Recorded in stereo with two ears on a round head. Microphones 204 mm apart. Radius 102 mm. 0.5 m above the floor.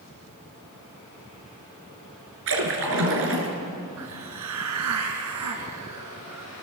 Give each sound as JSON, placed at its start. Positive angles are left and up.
{"t": 2.5, "sound": "a splash", "side_deg": -65, "distance_m": 4.5}
{"t": 4.0, "sound": "a hiss", "side_deg": -85, "distance_m": 2.5}